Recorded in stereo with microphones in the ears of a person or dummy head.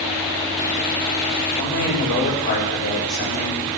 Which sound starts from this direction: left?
A man speaking, at 1.6 s.